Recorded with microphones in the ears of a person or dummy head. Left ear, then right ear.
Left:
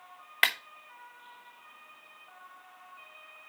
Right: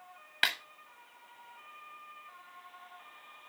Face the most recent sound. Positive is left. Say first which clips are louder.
# left 4 dB
turn(degrees=20)  # may be behind; listen again after turning